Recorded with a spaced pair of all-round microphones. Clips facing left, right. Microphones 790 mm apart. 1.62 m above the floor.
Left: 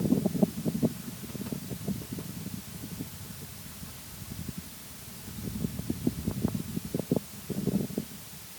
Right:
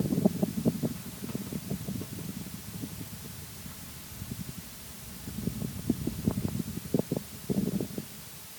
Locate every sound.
Only background noise.